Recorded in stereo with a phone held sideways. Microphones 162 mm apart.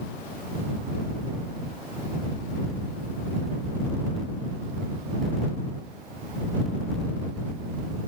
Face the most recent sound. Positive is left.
No sound to turn to.